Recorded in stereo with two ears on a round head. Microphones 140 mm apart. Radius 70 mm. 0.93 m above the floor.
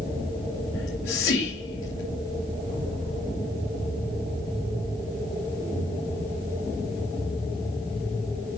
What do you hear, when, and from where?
0.7 s whispering: 70° left (ahead or behind), 2.5 m